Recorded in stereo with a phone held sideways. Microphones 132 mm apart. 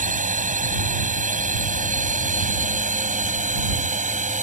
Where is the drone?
75° right (ahead or behind); by 4.5 s 70° right (ahead or behind).